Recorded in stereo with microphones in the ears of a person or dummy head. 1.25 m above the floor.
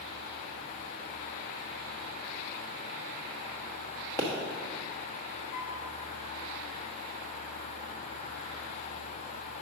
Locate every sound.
4.2 s a pop: 25° left (ahead or behind), 1.2 m
5.5 s a piano: 35° left (ahead or behind), 2 m